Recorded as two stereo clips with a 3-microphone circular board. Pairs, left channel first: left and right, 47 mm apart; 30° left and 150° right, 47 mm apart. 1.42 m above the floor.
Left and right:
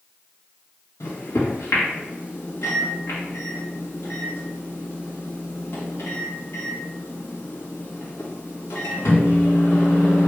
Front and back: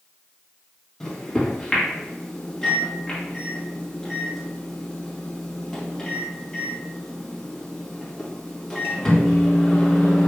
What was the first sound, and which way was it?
A microwave, 105° left.